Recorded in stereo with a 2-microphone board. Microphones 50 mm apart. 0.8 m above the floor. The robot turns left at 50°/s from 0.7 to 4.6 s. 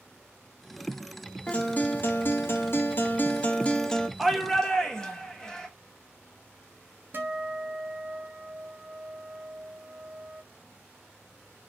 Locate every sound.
1.5 s a guitar: 150° left, 0.6 m; by 4.1 s 15° left, 0.6 m
4.2 s a shout: 5° right (ahead or behind), 1.0 m; by 5.7 s 10° left (ahead or behind), 1.0 m
7.1 s a guitar: 45° right (ahead or behind), 0.8 m